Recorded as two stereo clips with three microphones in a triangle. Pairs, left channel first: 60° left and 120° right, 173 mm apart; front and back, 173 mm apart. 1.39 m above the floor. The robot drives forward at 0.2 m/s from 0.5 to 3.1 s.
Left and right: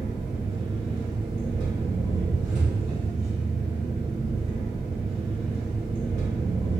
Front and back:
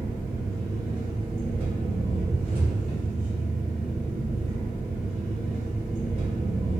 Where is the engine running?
145° right, 1.1 m; by 6.8 s 165° right, 1.3 m.